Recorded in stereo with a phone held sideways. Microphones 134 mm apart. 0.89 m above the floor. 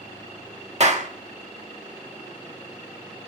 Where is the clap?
55° right (ahead or behind), 1.3 m.